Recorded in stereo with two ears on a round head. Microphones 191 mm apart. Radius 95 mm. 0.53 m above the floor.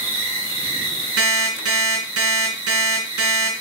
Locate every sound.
0.0 s an insect: 70° right (ahead or behind), 3.5 m
1.2 s an alarm clock: 75° right (ahead or behind), 4 m